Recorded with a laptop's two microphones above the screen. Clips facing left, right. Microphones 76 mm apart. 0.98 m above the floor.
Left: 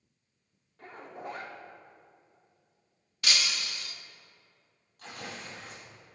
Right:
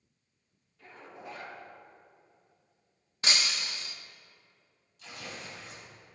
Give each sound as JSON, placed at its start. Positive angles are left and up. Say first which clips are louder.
{"t": 0.8, "sound": "a zipper", "louder": "left 5 dB", "side_deg": 50, "distance_m": 1.7}
{"t": 3.2, "sound": "breaking glass", "louder": "even", "side_deg": -30, "distance_m": 0.6}
{"t": 5.0, "sound": "tearing paper", "louder": "left 2 dB", "side_deg": 55, "distance_m": 3.5}